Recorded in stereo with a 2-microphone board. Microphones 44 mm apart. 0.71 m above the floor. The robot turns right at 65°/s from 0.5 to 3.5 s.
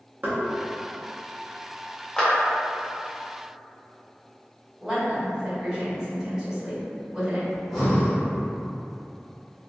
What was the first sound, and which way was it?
Knocking, 40° right (ahead or behind).